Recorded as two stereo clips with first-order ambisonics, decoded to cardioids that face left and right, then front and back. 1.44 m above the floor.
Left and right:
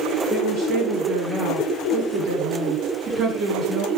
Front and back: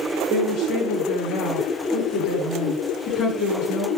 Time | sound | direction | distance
0.3 | a woman speaking | 55° right | 9 m